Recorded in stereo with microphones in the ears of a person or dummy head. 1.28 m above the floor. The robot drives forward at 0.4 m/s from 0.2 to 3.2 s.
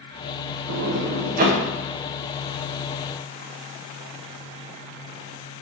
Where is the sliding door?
70° right (ahead or behind), 0.5 m; by 1.6 s 40° right (ahead or behind), 0.7 m.